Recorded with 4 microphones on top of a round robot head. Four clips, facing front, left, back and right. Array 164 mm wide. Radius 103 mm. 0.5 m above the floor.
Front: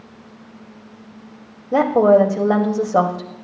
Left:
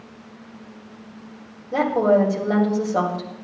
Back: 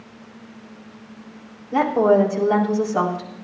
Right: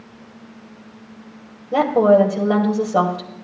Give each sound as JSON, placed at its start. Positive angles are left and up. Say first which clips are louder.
{"t": 1.7, "sound": "a woman speaking", "louder": "right 4 dB, front 3 dB", "azimuth_deg": -20, "distance_m": 2.5}